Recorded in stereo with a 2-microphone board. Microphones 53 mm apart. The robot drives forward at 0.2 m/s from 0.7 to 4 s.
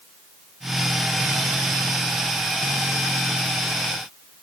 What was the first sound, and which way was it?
Only background noise.